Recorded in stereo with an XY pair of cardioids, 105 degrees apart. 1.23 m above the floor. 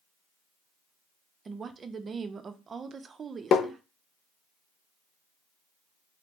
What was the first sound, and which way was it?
A woman speaking, 40° right.